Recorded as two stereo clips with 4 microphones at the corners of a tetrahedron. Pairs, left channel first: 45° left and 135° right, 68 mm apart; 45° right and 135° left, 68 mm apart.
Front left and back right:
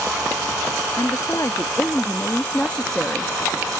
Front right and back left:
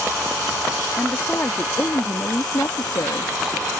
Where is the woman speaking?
15° left; by 3.3 s 50° right.